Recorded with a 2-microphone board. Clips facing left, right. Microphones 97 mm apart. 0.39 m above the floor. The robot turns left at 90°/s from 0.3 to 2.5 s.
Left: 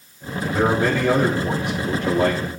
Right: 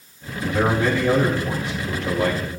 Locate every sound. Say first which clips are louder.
0.4 s a man speaking: left 1 dB; 165° right, 8 m; by 2.5 s 5° left, 8 m